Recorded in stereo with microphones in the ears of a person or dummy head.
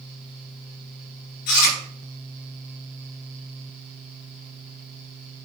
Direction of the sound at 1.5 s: 55° left (ahead or behind).